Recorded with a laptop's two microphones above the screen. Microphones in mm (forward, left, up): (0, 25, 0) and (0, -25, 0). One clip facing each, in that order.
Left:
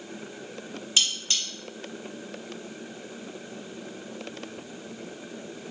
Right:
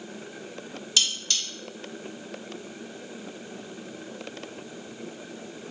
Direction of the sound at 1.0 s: 25° left (ahead or behind).